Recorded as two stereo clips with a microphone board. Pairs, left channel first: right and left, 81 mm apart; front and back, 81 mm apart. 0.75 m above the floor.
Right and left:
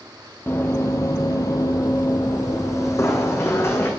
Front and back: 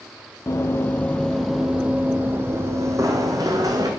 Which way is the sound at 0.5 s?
40° right.